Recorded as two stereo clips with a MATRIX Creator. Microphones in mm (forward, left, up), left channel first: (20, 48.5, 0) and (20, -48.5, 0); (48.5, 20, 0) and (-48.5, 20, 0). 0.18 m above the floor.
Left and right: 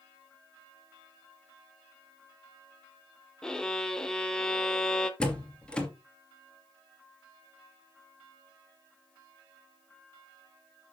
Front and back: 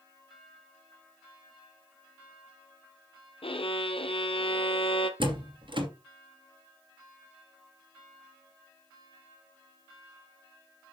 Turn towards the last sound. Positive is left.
turn(degrees=170)